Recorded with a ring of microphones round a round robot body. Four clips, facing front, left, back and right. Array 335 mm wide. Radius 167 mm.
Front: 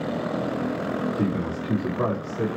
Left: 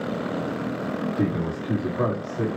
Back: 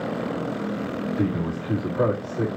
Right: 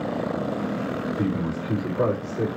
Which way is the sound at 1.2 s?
120° left.